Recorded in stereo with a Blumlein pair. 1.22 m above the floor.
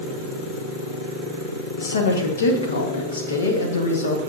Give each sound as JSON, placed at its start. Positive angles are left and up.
{"t": 1.8, "sound": "a woman speaking", "azimuth_deg": 70, "distance_m": 1.5}